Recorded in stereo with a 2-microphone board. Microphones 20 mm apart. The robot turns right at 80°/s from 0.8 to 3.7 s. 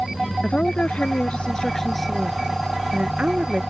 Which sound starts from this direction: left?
A woman speaking, at 0.4 s.